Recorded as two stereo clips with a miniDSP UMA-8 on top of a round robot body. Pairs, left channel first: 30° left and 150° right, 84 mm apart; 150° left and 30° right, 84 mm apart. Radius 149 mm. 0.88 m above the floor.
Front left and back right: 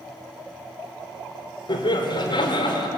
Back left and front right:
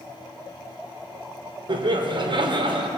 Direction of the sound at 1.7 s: Straight ahead.